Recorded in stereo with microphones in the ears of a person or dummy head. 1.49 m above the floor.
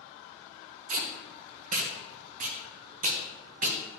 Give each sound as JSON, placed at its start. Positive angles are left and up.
{"t": 0.9, "sound": "tape being pulled", "side_deg": -50, "distance_m": 0.8}